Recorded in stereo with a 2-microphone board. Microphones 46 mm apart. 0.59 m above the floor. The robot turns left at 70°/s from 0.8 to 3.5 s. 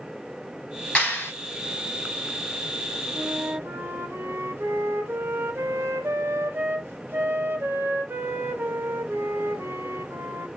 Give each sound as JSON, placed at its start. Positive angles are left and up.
{"t": 0.9, "sound": "a clap", "side_deg": 35, "distance_m": 3.5}
{"t": 3.1, "sound": "a flute", "side_deg": -35, "distance_m": 0.9}